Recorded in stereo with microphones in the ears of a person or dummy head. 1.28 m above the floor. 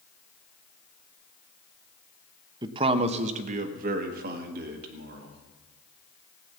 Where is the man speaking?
25° right (ahead or behind), 0.9 m; by 5.4 s 60° right (ahead or behind), 2.5 m.